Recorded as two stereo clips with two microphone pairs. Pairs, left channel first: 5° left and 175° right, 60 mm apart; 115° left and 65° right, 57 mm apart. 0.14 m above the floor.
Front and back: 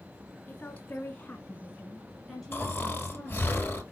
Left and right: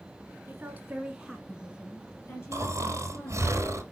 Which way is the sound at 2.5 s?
50° right.